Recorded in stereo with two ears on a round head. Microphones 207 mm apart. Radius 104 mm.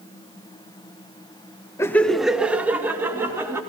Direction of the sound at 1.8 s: 15° left (ahead or behind).